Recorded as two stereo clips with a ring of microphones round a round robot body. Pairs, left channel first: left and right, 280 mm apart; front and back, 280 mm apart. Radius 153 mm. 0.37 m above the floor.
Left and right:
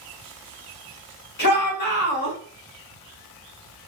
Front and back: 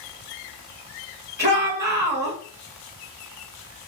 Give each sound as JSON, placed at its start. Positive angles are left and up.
{"t": 1.4, "sound": "a shout", "azimuth_deg": 135, "distance_m": 1.3}